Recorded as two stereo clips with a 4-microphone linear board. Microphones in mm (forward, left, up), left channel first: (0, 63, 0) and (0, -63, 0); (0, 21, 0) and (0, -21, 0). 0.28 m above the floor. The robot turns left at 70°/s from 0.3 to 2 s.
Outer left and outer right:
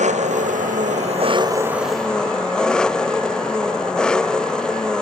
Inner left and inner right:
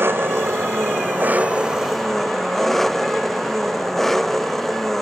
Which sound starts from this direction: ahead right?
An engine running, at 0.0 s.